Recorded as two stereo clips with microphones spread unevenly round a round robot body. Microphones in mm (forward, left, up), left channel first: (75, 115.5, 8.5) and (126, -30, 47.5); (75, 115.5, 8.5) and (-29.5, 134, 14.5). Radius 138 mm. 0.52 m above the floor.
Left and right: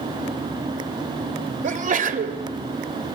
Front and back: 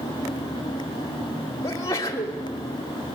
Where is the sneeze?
55° right, 1.4 m.